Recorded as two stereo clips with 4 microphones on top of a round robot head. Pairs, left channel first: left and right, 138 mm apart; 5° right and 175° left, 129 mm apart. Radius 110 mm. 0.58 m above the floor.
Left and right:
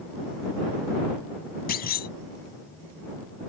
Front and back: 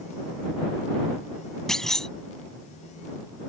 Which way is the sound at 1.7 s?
85° left.